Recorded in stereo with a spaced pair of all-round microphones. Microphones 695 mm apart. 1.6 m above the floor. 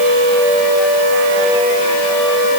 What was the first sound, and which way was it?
Only background noise.